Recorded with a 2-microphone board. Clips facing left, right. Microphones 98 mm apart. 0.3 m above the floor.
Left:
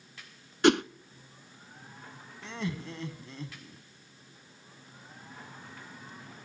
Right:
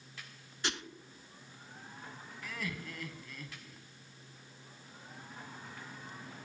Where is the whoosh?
65° left (ahead or behind), 0.6 m.